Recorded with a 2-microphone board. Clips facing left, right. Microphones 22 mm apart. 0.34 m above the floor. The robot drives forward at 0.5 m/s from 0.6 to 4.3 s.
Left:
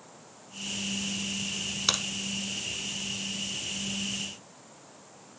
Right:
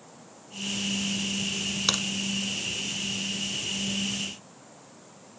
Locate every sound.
1.9 s a crack: 5° right (ahead or behind), 0.8 m